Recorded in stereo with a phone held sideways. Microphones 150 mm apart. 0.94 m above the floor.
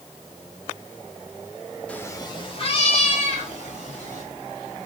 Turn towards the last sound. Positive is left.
turn(degrees=60)  # may be behind; listen again after turning